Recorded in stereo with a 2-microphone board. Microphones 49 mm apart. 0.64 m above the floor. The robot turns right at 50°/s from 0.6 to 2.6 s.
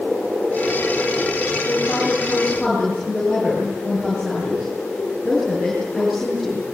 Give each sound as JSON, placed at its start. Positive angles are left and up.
{"t": 1.6, "sound": "a woman speaking", "azimuth_deg": 135, "distance_m": 9.0}